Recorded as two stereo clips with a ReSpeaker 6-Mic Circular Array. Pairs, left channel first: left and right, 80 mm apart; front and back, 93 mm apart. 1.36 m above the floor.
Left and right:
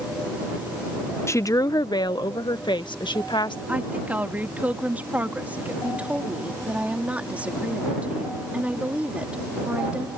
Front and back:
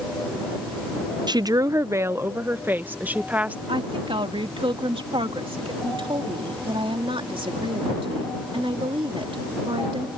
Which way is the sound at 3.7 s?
160° right.